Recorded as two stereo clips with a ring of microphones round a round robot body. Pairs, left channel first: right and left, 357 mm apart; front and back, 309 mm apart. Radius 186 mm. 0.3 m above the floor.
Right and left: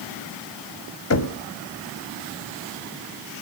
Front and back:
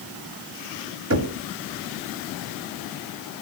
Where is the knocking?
135° right, 1.4 m.